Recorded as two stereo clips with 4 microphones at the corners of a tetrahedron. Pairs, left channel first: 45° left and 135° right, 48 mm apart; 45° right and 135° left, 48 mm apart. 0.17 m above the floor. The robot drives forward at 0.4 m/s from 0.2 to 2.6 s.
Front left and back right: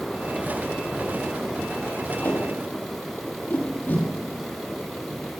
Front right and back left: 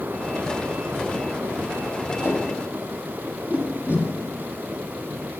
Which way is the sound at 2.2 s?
85° left.